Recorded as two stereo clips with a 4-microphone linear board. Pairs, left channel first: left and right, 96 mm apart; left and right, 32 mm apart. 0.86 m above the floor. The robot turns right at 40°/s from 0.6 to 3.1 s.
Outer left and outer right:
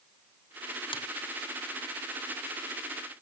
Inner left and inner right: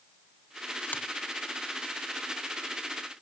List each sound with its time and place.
0.9 s a finger snap: 65° left (ahead or behind), 1.4 m